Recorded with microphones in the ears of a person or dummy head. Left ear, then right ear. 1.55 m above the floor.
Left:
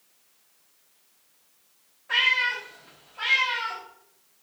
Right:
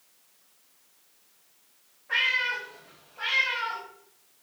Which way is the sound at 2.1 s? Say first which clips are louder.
Left 3 dB; 25° left (ahead or behind).